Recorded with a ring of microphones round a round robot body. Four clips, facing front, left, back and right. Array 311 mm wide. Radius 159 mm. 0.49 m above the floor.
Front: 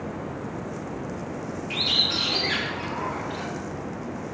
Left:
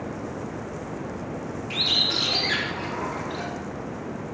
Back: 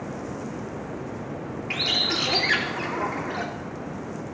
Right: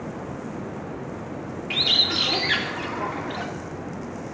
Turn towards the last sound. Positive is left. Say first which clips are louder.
# right 1 dB, back 2 dB
turn(degrees=-150)